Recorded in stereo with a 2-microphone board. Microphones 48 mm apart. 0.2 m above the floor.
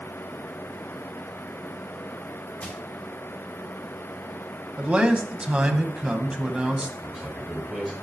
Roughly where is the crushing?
Left.